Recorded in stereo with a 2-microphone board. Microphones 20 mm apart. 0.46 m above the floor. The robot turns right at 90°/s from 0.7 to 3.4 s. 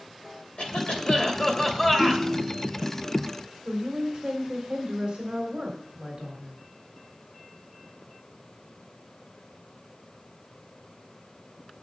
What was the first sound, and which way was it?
A cough, 75° left.